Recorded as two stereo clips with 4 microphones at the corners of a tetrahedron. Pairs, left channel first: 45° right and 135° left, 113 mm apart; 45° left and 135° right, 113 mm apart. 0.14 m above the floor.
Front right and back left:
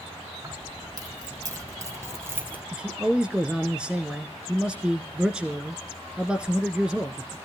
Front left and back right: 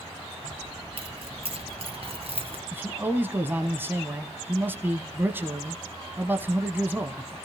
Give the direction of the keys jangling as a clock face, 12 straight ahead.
6 o'clock.